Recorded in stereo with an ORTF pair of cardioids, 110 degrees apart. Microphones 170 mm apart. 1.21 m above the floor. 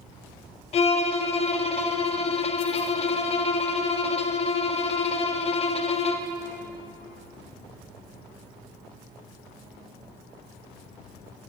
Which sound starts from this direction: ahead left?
A violin, at 0.7 s.